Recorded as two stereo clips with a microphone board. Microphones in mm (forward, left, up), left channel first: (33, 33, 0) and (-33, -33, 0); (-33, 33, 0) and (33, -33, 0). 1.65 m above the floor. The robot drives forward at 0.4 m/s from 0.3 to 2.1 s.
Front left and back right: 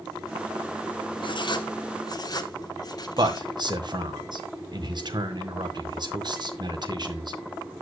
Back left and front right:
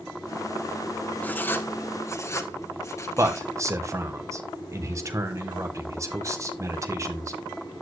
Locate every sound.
1.2 s writing: 65° left, 1.3 m; by 3.6 s 80° left, 1.2 m
3.2 s a man speaking: 100° right, 1.8 m